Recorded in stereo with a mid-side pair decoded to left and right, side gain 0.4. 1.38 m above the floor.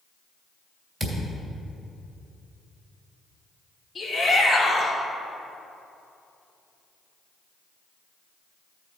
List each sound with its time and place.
1.0 s a thud: 25° right, 3 m
4.0 s a shout: 40° left, 3 m